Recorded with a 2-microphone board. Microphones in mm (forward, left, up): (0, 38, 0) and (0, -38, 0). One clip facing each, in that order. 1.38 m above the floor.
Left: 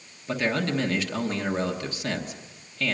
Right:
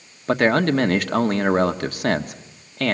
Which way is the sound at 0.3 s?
55° right (ahead or behind).